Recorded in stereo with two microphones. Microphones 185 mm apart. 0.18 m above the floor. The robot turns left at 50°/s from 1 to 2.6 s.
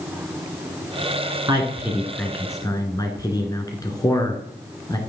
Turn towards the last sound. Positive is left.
turn(degrees=155)